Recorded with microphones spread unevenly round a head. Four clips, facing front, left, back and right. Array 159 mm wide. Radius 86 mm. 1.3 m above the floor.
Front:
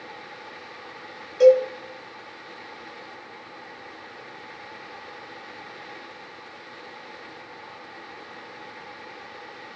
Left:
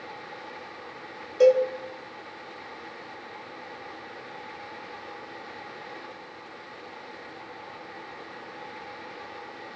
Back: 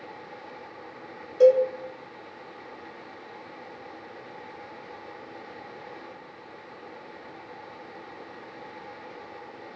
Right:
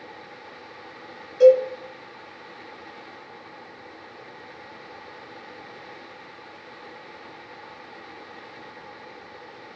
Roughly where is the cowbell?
Behind left.